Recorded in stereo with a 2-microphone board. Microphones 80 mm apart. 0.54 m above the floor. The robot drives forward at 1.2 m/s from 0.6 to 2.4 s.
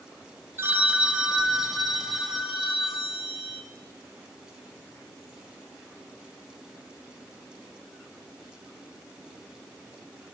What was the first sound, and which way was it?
A phone ringing, 30° right (ahead or behind).